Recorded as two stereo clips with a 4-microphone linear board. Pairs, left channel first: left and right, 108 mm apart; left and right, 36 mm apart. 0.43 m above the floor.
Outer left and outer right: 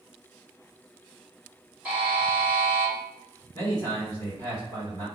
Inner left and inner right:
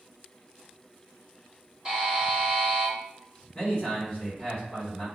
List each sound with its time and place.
1.9 s a buzzer: 15° right (ahead or behind), 1.2 m
3.5 s a man speaking: 35° left (ahead or behind), 1.7 m